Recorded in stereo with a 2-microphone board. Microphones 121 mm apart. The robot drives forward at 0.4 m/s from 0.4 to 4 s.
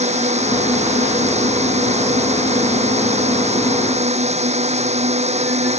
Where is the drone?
65° right (ahead or behind).